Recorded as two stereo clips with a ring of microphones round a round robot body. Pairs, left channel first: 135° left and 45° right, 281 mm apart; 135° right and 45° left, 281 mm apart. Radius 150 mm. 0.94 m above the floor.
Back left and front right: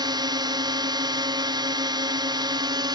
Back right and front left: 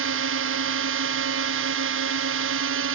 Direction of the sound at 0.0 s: 25° left.